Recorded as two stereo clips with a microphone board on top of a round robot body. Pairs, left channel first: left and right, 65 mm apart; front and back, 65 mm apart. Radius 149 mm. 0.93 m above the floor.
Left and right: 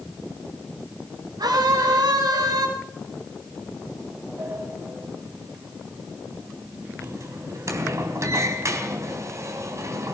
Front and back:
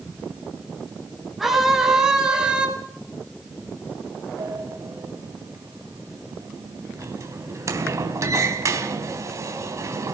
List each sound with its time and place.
1.4 s a scream: 90° right, 7 m; by 2.7 s 105° right, 6.5 m
4.4 s a sliding door: 135° right, 3.5 m